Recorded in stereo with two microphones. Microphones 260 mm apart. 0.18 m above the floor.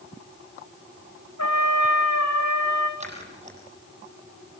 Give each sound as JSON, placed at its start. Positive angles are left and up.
{"t": 1.4, "sound": "a trumpet", "side_deg": 85, "distance_m": 3.5}
{"t": 3.0, "sound": "scissors", "side_deg": -25, "distance_m": 7.0}